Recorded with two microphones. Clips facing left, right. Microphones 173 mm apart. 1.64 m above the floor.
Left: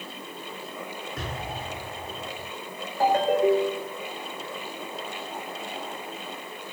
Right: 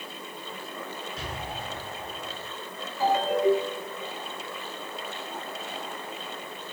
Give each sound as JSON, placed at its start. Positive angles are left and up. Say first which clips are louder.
{"t": 1.2, "sound": "an explosion", "louder": "left 4 dB", "side_deg": 55, "distance_m": 7.0}
{"t": 3.0, "sound": "a ringtone", "louder": "left 2 dB", "side_deg": 50, "distance_m": 3.0}